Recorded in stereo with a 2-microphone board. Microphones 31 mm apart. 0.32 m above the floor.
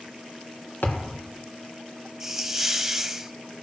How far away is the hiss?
About 0.8 m.